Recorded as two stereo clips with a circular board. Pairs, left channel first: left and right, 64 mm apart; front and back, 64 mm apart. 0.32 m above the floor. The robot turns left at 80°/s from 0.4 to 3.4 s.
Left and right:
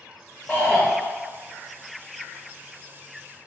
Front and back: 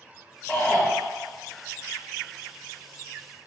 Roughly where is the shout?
Ahead left.